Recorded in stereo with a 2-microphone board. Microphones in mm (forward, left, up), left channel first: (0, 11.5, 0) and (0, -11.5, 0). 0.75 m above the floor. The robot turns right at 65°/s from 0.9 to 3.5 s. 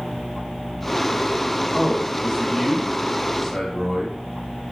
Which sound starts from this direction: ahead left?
A man speaking, at 1.7 s.